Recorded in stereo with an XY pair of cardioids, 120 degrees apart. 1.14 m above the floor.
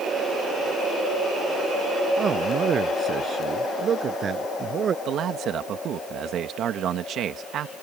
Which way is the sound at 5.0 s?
60° right.